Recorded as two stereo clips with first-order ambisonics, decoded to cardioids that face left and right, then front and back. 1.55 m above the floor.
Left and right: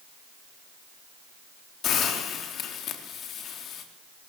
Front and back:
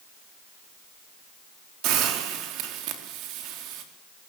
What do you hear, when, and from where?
1.8 s a hiss: 145° left, 3.5 m